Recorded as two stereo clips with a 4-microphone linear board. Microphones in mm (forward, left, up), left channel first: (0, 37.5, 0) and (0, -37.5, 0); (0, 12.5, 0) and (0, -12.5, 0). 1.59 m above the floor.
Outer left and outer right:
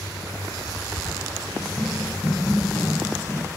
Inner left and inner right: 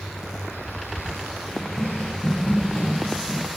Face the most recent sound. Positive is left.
turn(degrees=30)  # may be behind; listen again after turning